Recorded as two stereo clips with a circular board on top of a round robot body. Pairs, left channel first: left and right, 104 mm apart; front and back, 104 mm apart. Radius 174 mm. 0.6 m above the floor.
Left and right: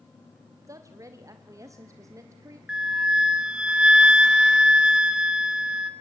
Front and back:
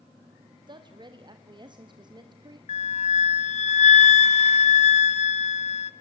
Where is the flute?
10° right, 0.6 m.